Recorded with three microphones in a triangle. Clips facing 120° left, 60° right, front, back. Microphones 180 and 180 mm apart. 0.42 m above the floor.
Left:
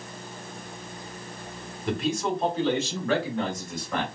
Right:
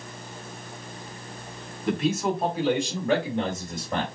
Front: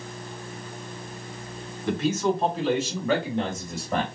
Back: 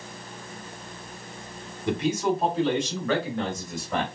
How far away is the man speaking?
About 1.4 m.